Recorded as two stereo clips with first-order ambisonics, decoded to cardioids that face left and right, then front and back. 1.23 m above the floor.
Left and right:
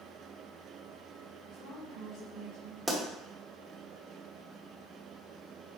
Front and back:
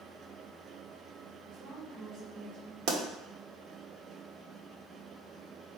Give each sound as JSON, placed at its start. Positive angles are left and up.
{"t": 1.5, "sound": "a woman speaking", "azimuth_deg": 130, "distance_m": 3.5}
{"t": 2.9, "sound": "a pop", "azimuth_deg": -170, "distance_m": 1.4}